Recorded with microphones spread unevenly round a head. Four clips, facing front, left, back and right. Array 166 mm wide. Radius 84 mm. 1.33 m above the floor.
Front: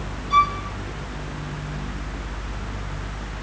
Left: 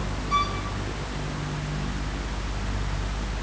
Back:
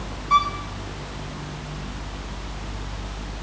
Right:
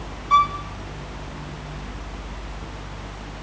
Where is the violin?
140° right, 3 m.